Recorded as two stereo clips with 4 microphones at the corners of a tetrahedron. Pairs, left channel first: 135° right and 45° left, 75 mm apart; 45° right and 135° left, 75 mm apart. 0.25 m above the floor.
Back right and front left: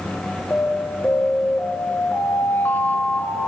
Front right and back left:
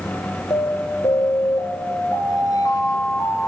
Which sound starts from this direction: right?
An alarm, at 0.5 s.